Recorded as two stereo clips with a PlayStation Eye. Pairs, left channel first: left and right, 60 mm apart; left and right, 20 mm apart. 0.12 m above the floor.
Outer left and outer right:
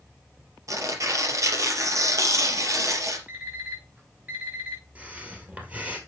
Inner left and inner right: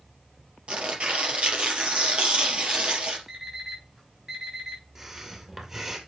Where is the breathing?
25° right (ahead or behind), 2 m.